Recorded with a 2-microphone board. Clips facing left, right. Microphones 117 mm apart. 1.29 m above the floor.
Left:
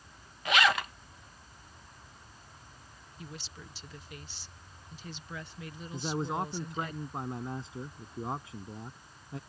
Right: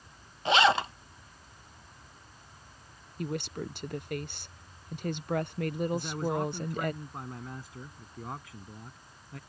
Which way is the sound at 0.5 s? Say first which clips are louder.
Right 4 dB; 25° right (ahead or behind).